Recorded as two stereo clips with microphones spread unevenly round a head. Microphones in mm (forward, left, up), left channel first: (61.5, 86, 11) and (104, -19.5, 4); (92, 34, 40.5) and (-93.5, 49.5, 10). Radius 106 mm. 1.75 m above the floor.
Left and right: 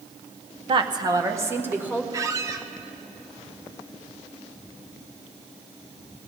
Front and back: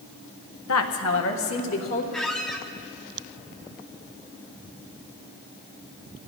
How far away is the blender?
No blender in this recording.